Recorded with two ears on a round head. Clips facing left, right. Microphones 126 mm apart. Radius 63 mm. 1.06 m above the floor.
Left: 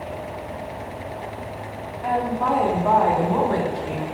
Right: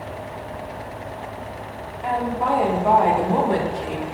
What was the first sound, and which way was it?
A woman speaking, centre (ahead or behind).